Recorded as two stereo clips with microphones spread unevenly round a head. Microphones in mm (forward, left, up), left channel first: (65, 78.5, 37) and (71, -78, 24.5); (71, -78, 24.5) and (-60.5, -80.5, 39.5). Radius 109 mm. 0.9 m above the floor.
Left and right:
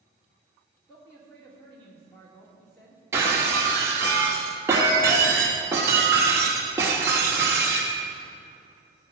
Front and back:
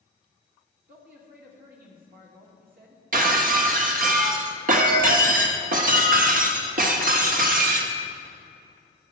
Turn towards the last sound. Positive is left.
turn(degrees=-165)